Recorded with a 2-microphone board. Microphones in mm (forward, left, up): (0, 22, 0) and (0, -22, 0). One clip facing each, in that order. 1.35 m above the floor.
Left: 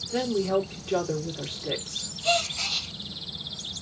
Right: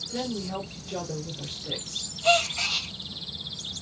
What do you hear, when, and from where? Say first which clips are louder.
0.1 s a woman speaking: left 7 dB; 80° left, 2 m
2.2 s a gasp: right 3 dB; 35° right (ahead or behind), 1.3 m